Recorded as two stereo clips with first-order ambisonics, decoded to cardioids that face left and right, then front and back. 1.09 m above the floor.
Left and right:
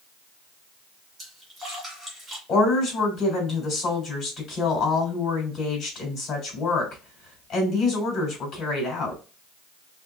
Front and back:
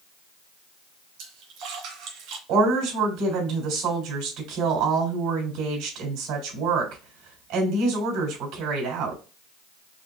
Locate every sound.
1.2 s a splash: 170° right, 2 m
2.5 s a woman speaking: 155° left, 3 m